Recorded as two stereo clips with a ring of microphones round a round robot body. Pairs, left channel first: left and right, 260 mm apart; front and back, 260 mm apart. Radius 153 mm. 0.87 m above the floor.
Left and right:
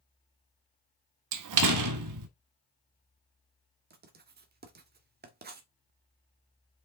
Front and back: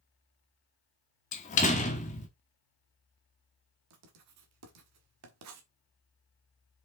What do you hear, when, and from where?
1.3 s a door slam: 65° right, 0.9 m
3.9 s writing: 145° right, 1.4 m